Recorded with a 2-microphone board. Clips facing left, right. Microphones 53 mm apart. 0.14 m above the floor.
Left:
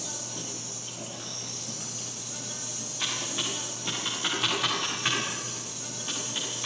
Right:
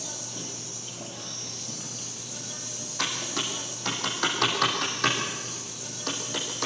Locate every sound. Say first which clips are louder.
0.0 s an insect: even; 5° left (ahead or behind), 4 m
3.0 s typing on a keyboard: right 2 dB; 65° right (ahead or behind), 5.5 m